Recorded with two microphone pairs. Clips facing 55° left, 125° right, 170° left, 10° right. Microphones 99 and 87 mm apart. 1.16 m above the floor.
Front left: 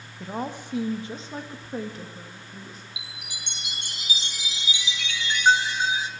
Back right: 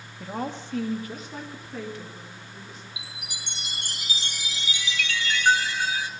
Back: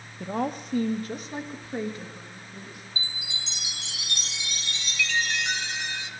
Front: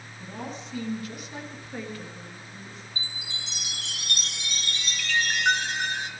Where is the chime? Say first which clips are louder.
Back right 1 dB, back 3 dB; 10° right, 0.9 m.